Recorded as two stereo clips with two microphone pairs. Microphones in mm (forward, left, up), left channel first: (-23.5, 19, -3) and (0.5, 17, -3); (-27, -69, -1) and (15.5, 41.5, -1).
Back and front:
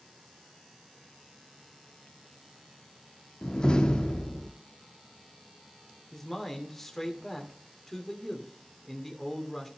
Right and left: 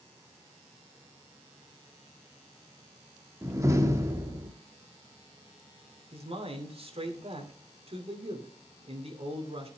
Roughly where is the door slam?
Behind left.